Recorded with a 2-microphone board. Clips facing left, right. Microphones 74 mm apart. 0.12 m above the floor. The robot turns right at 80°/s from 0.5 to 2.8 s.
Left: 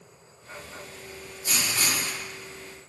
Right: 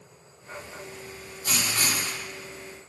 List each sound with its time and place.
1.4 s writing: 80° right, 0.8 m; by 2.2 s 20° right, 0.8 m